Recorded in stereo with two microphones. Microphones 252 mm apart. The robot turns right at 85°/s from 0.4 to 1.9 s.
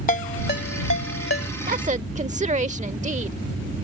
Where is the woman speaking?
35° right (ahead or behind); by 3.4 s 30° right (ahead or behind).